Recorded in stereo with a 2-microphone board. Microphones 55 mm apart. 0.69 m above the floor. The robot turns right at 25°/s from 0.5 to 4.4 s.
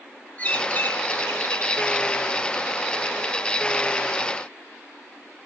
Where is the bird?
30° left, 2.5 m; by 2.1 s 70° left, 2.5 m.